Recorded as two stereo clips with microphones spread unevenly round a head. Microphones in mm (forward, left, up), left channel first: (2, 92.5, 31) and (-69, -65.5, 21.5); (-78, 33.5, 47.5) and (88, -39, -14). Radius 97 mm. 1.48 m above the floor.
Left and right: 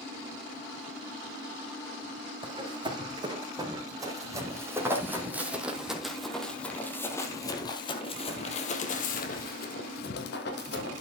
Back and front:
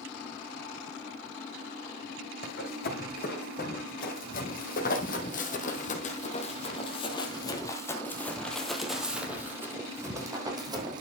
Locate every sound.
2.4 s running footsteps: straight behind, 4 m; by 11.0 s 55° left, 3 m